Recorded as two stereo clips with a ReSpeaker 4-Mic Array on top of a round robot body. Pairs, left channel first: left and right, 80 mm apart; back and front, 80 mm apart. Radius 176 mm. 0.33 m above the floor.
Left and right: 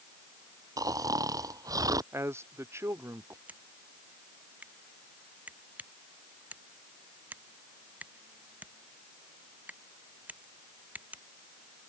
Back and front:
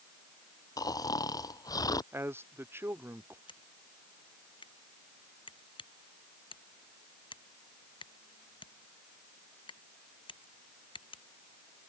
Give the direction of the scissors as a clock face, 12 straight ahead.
5 o'clock.